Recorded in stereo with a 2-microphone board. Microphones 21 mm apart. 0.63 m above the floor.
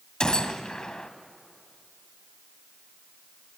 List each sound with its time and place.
0.2 s a gunshot: 40° left (ahead or behind), 1.0 m